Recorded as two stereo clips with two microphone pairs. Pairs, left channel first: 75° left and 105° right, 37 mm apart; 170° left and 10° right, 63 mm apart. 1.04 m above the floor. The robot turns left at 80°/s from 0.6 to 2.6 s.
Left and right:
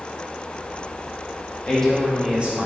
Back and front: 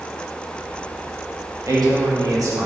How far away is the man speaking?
About 1.4 m.